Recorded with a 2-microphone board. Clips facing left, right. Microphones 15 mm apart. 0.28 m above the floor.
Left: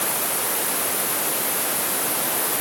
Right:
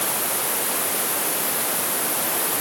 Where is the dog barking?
No dog barking in this recording.